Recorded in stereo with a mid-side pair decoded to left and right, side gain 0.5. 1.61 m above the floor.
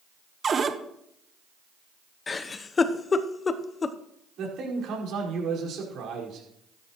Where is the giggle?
35° left, 0.9 m.